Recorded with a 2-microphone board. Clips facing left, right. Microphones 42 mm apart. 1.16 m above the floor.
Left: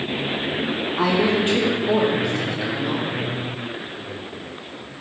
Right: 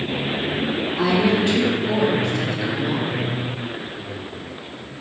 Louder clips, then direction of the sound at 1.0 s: Even; 40° left (ahead or behind).